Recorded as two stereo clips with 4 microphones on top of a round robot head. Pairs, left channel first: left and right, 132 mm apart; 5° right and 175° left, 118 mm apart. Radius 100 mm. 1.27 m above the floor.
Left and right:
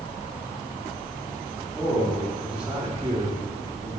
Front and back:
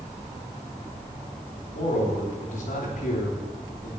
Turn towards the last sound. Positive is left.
turn(degrees=-40)